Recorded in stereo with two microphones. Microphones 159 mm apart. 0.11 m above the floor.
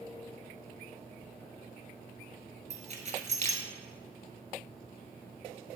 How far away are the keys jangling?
About 1.3 m.